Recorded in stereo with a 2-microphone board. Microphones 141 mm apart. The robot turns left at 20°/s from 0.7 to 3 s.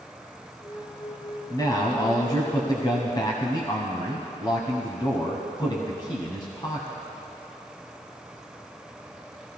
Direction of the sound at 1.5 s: 30° left (ahead or behind).